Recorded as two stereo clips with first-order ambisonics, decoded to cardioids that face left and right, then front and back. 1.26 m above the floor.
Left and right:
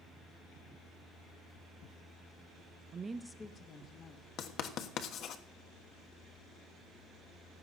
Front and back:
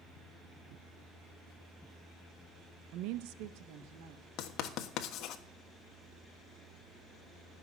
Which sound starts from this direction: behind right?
A woman speaking, at 2.9 s.